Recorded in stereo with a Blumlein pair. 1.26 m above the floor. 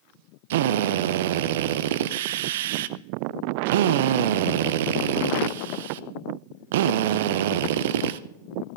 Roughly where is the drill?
Ahead right.